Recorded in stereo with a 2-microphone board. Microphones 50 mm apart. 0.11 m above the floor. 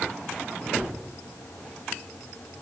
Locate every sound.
0.7 s a gunshot: centre (ahead or behind), 5 m